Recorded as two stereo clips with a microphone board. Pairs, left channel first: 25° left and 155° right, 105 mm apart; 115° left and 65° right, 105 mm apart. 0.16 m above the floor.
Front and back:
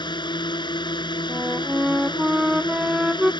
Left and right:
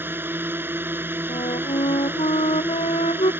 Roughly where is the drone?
Ahead.